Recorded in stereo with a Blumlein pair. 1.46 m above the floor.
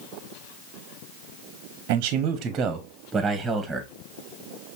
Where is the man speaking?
45° right, 0.9 m; by 3.9 s 5° right, 1.6 m.